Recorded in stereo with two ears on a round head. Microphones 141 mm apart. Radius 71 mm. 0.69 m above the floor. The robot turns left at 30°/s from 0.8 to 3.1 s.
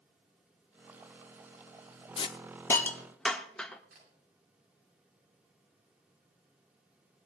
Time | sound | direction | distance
2.2 | a hiss | 35° left (ahead or behind) | 0.9 m
3.9 | a camera shutter | 70° right (ahead or behind) | 9 m